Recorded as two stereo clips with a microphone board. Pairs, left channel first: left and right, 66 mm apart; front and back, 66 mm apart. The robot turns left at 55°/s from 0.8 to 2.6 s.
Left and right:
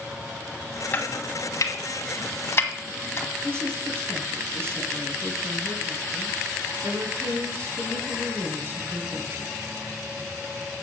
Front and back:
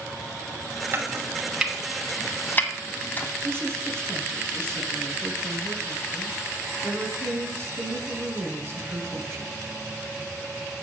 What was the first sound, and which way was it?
Chopping, 140° left.